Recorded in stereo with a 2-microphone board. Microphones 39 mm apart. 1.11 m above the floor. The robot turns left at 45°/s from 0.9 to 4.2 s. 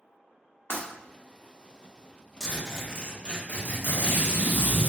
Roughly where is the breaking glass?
Left.